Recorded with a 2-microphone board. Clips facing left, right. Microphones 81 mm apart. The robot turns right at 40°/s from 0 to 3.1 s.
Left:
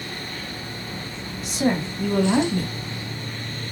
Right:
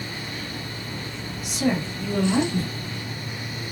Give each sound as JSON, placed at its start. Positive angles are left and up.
{"t": 1.4, "sound": "a woman speaking", "azimuth_deg": 35, "distance_m": 1.2}